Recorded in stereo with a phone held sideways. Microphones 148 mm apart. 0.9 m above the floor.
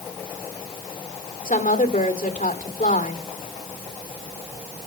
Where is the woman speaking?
55° left (ahead or behind), 2 m.